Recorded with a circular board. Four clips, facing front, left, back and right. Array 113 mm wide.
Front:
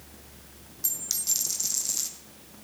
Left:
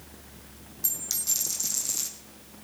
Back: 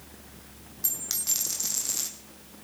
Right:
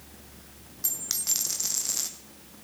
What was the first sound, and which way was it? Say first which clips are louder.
A dropped coin: right 2 dB, back 3 dB; 115° right.